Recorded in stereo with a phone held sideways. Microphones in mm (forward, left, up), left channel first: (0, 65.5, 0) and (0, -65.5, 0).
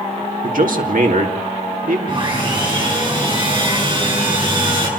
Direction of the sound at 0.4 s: 75° right (ahead or behind).